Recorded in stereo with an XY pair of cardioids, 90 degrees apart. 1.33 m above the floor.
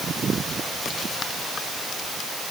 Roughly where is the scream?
I don't hear a scream.